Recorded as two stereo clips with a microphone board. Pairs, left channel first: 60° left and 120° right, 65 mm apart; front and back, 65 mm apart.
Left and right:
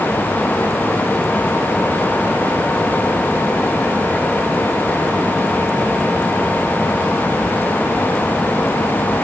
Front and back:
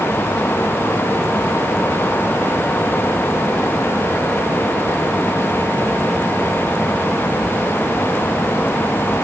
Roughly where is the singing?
I don't hear singing.